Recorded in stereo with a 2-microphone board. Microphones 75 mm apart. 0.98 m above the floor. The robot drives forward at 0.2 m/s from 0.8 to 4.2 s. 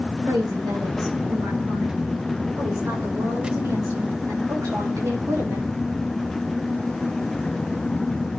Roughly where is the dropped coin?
No dropped coin in this recording.